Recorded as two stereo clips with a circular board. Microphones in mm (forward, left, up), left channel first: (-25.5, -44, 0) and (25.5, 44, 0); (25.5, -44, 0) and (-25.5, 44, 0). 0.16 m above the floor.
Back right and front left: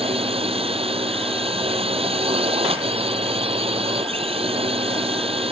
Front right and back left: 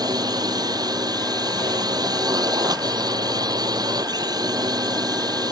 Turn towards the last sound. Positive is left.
turn(degrees=75)